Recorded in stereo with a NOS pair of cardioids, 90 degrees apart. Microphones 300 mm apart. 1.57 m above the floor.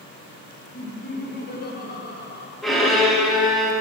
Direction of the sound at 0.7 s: 30° left.